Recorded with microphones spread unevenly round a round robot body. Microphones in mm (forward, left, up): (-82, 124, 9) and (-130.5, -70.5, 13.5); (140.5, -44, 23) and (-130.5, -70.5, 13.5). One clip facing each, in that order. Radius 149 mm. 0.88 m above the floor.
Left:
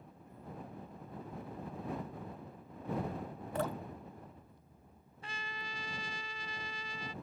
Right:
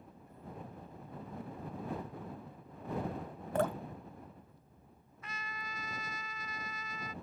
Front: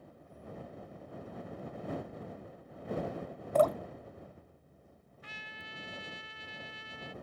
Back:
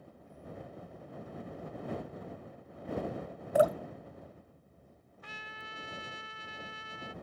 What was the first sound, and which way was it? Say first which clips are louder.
Dripping: right 4 dB, back 1 dB; 100° right.